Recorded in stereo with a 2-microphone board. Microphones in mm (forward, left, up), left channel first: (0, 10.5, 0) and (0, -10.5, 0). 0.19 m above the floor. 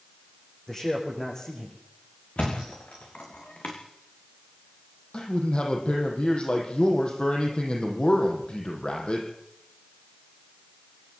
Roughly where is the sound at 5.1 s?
Left.